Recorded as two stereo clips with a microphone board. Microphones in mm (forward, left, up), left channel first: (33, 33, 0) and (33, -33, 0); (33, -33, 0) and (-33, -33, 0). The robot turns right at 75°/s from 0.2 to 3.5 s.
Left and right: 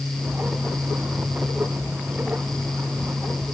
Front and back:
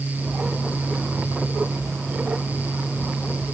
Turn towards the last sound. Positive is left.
No sound to turn to.